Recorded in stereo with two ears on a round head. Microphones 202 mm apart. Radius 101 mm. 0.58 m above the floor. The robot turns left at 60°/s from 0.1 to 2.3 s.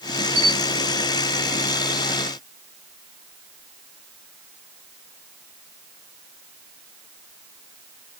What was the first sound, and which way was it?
A camera shutter, 85° right.